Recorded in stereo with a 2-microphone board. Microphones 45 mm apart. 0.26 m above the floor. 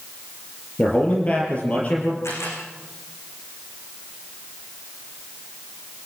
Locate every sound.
0.8 s a man speaking: 30° left (ahead or behind), 5 m
2.2 s a camera shutter: 75° left (ahead or behind), 10 m